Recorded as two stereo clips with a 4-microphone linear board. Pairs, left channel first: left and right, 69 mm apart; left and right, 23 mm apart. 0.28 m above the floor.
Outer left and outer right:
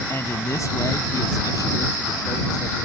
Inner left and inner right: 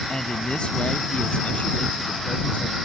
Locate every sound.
0.1 s a man speaking: 40° left (ahead or behind); by 2.8 s 70° left (ahead or behind)